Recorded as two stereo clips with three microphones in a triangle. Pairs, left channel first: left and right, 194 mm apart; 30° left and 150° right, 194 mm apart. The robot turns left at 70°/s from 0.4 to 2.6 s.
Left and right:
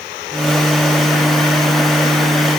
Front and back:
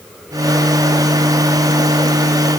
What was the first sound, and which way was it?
Only background noise.